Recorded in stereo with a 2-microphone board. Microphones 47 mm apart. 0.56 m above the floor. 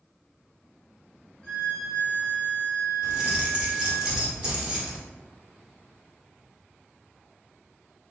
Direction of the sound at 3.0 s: 15° right (ahead or behind).